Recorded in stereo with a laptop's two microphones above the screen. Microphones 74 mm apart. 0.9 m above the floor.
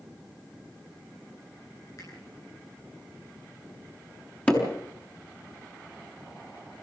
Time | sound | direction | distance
2.0 | a finger snap | 50° left (ahead or behind) | 10 m
4.5 | hammering | 20° left (ahead or behind) | 6 m